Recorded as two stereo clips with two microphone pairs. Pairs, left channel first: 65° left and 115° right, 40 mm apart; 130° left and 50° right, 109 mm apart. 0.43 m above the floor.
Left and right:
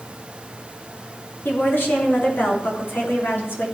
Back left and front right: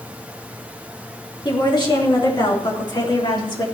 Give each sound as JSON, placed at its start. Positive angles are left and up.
{"t": 1.4, "sound": "a woman speaking", "azimuth_deg": 85, "distance_m": 4.0}